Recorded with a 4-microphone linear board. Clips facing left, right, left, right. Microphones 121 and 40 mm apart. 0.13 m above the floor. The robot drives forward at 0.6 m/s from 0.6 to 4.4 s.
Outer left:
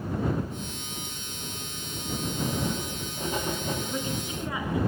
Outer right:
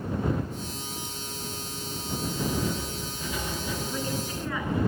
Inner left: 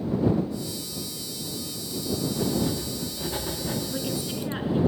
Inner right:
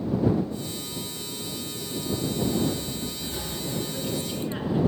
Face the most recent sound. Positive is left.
turn(degrees=15)  # may be behind; listen again after turning